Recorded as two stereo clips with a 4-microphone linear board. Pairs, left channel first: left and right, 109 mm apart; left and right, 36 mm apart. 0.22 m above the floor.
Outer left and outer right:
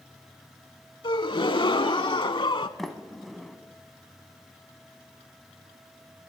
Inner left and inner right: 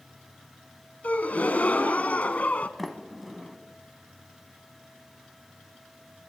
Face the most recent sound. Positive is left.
turn(degrees=0)  # may be behind; listen again after turning